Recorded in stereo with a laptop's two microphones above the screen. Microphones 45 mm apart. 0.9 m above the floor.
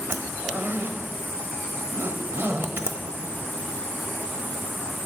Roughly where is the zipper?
Right.